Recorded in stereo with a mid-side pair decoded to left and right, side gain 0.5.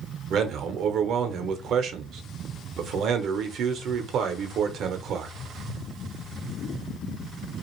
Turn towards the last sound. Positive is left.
turn(degrees=-60)